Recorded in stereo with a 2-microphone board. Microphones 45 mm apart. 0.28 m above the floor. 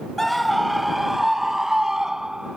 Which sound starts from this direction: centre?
A scream, at 0.2 s.